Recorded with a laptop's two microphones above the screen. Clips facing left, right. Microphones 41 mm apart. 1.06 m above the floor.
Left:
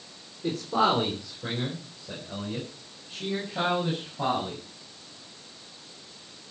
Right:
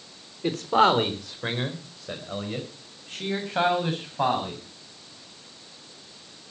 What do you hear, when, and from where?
0.4 s a man speaking: 55° right (ahead or behind), 3 m; by 4.6 s 65° right (ahead or behind), 7 m